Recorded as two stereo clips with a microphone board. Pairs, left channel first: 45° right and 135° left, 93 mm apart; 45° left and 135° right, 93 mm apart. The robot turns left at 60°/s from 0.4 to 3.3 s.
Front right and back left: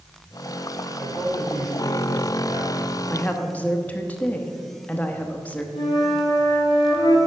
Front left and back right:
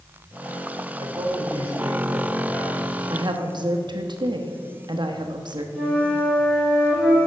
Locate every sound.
1.0 s a man speaking: 130° right, 2.5 m; by 3.0 s 110° left, 2.5 m
3.1 s a woman speaking: 105° right, 0.9 m; by 5.7 s 115° right, 0.9 m
5.8 s a flute: 40° right, 2 m